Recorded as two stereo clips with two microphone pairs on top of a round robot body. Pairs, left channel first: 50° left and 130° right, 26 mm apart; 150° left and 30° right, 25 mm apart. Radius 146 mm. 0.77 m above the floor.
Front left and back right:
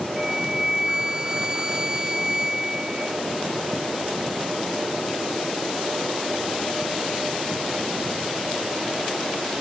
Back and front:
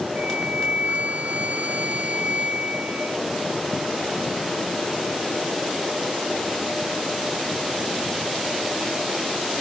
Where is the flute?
60° right.